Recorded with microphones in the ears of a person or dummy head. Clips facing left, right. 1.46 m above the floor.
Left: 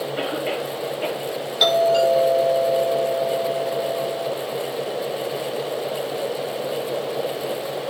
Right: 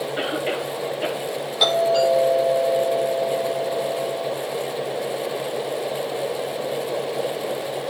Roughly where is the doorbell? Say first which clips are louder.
Left 2 dB; centre.